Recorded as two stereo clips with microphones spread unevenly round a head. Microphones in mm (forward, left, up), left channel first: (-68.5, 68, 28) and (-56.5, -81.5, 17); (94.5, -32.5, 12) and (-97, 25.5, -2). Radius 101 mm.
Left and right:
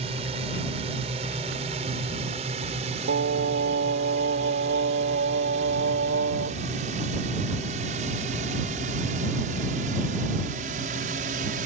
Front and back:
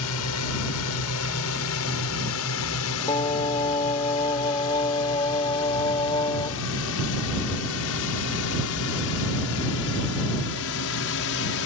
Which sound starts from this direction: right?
Singing, at 3.1 s.